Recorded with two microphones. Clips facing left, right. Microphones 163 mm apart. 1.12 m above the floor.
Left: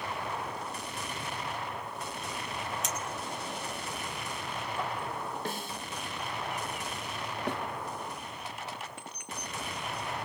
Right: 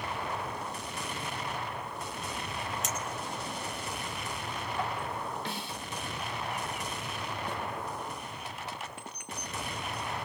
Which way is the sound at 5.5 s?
50° left (ahead or behind).